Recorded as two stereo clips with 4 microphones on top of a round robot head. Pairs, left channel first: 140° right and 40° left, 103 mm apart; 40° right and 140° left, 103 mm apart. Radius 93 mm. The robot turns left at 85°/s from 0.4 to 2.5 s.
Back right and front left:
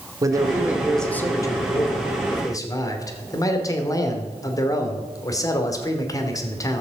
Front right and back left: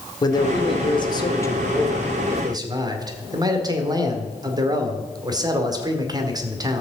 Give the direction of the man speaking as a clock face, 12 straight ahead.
12 o'clock.